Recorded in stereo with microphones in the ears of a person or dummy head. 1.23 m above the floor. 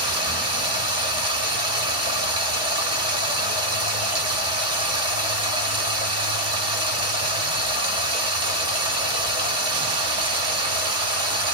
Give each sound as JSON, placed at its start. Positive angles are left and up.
{"t": 0.0, "sound": "running water", "side_deg": -30, "distance_m": 1.2}